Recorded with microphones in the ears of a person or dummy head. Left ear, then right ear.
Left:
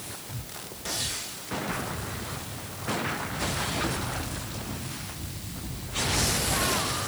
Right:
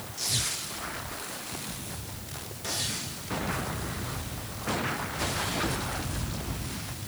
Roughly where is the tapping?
I don't hear tapping.